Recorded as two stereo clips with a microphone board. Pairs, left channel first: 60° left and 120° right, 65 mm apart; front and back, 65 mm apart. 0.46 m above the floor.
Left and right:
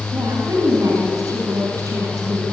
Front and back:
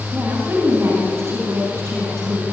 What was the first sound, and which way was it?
A woman speaking, 130° right.